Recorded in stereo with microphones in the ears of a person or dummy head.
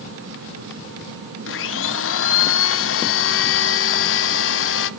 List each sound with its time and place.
1.5 s a blender: 60° left (ahead or behind), 0.8 m